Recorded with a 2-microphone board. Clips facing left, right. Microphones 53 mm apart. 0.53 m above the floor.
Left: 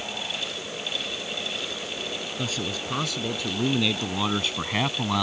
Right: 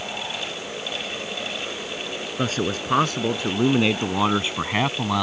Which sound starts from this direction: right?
A man speaking, at 2.4 s.